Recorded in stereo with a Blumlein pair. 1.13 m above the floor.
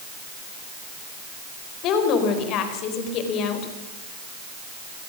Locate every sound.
1.8 s a woman speaking: 35° left, 4 m